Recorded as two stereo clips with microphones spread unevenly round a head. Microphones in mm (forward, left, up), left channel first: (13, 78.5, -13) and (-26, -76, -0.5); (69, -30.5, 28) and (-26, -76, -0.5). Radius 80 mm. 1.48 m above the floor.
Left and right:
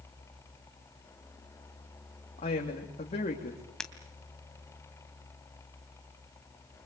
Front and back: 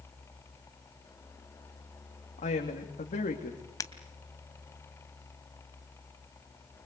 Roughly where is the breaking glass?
Ahead.